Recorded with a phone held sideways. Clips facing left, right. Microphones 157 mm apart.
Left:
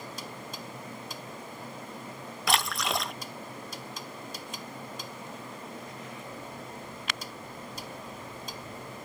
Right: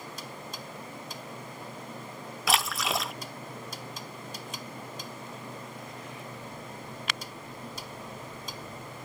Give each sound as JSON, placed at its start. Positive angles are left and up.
{"t": 2.5, "sound": "a splash", "side_deg": 0}